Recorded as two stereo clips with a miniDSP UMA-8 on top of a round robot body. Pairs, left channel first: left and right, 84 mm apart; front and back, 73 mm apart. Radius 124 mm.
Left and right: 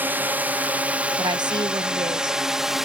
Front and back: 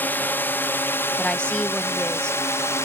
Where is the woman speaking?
75° right.